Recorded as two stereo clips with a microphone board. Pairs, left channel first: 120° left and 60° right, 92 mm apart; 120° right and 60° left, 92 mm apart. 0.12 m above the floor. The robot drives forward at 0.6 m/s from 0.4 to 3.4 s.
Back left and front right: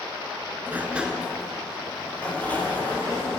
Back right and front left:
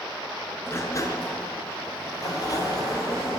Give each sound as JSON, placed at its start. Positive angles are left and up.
{"t": 0.7, "sound": "a sliding door", "azimuth_deg": -100, "distance_m": 0.6}